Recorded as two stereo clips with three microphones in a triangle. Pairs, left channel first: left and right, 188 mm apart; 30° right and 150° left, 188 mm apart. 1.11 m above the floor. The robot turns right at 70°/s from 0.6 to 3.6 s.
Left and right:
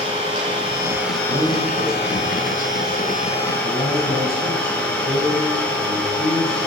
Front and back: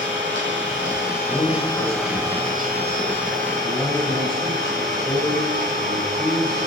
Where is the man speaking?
105° right, 4 m; by 6.7 s 55° left, 4 m.